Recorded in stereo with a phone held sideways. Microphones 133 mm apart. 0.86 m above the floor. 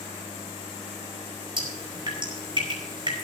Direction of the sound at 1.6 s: 40° right (ahead or behind).